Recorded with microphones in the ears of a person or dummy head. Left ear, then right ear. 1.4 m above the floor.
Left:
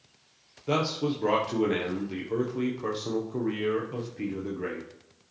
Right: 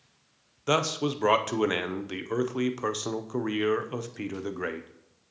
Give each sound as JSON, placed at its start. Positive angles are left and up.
{"t": 0.7, "sound": "a man speaking", "side_deg": -45, "distance_m": 0.6}